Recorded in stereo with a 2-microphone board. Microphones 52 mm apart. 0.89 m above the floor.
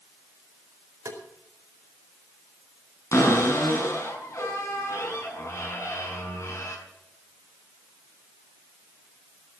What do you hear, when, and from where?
1.1 s tapping: 75° right (ahead or behind), 4.5 m
3.1 s a cupboard door: 65° left (ahead or behind), 6.5 m